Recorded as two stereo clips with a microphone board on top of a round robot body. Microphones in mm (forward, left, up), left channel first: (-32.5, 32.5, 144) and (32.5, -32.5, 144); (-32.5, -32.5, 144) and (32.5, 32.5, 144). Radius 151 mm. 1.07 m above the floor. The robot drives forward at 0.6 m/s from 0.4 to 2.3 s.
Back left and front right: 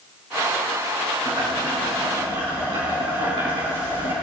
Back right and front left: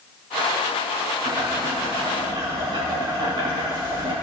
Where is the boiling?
Straight ahead, 7 m.